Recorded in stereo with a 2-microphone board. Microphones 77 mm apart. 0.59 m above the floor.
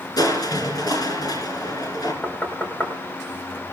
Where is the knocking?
20° left (ahead or behind), 3 m.